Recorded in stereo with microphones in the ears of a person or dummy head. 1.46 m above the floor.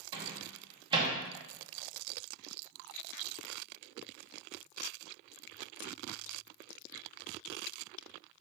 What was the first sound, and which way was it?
A microwave, 30° right (ahead or behind).